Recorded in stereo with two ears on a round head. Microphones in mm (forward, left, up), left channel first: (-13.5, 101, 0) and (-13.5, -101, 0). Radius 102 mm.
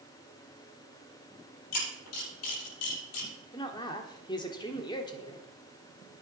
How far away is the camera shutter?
About 7.5 m.